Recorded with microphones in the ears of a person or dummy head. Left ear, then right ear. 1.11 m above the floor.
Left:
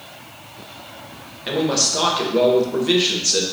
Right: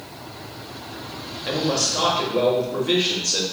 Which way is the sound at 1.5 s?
10° left (ahead or behind).